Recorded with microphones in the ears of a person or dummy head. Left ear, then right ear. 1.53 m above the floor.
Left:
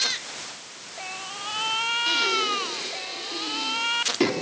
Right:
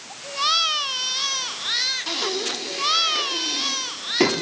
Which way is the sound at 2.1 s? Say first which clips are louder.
Left 2 dB; 20° right (ahead or behind).